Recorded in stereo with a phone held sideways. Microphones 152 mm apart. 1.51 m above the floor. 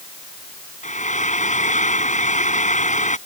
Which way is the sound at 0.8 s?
50° left (ahead or behind).